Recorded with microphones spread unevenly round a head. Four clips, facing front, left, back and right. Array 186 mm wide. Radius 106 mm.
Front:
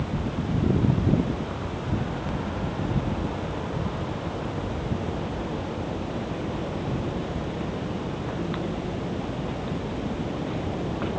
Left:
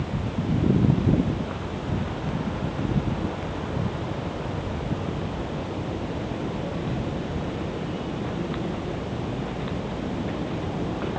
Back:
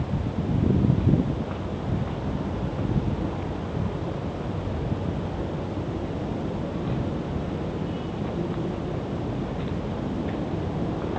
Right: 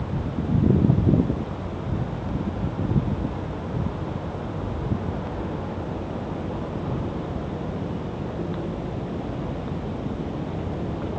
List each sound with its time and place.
Only background noise.